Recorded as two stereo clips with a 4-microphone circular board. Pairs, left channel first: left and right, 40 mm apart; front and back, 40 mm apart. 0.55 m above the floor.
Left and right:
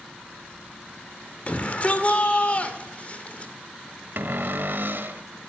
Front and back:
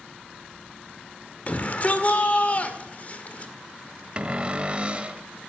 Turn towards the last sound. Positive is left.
turn(degrees=-120)